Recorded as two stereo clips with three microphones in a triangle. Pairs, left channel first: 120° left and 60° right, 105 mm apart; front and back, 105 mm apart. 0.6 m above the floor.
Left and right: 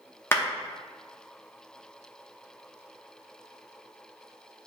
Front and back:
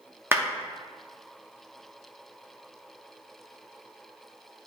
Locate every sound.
0.3 s a clap: 150° left, 0.8 m